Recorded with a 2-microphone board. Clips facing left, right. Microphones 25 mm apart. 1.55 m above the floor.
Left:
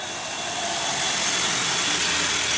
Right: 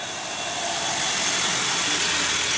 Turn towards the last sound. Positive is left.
No sound to turn to.